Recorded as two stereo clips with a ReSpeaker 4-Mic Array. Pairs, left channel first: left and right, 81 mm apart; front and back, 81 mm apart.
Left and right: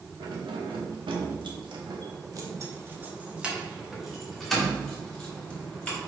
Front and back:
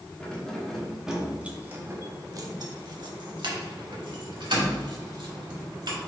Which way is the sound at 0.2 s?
75° right.